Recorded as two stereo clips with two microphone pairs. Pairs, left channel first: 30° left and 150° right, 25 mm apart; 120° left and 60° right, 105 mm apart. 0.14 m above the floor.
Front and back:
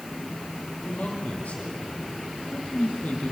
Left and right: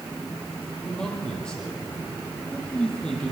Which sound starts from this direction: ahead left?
A man speaking, at 0.8 s.